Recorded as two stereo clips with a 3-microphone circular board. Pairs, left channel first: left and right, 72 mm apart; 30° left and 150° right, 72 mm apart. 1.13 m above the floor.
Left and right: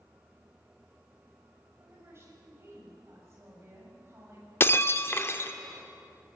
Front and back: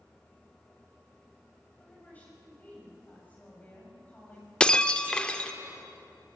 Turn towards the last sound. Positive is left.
turn(degrees=95)